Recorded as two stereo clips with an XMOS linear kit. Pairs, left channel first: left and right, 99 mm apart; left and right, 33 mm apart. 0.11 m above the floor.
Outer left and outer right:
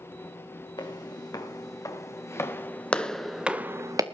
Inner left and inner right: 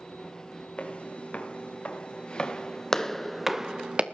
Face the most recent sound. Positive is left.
turn(degrees=-40)  # may be behind; listen again after turning